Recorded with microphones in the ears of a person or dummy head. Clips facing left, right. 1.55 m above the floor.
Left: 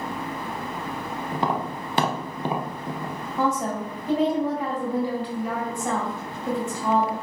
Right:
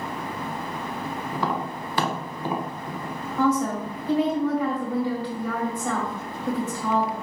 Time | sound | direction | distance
1.3 | tapping | 20° left (ahead or behind) | 0.6 m
3.4 | a woman speaking | 20° left (ahead or behind) | 1.7 m